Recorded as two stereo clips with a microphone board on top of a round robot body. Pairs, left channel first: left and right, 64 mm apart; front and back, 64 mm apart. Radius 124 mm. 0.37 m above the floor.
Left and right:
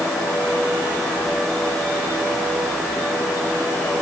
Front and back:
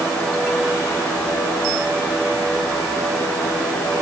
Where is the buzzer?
No buzzer in this recording.